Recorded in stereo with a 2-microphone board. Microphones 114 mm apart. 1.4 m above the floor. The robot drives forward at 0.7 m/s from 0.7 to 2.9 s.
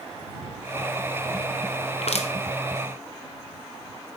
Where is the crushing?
60° left (ahead or behind), 0.8 m; by 2.3 s 70° left (ahead or behind), 0.8 m.